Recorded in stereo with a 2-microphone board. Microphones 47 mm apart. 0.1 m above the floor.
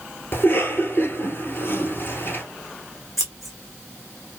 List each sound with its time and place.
0.3 s a cough: 45° left (ahead or behind), 1.6 m
3.2 s scissors: centre (ahead or behind), 1.1 m